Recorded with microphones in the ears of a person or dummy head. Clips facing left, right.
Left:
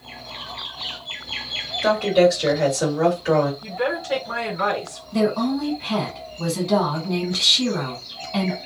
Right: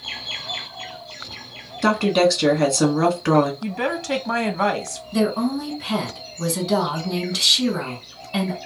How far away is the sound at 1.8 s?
About 1.6 m.